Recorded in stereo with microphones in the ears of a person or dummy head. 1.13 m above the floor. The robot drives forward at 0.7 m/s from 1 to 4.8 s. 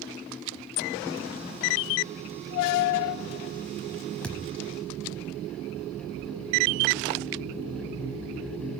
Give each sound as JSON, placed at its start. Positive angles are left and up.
{"t": 4.2, "sound": "a thud", "side_deg": 5, "distance_m": 1.1}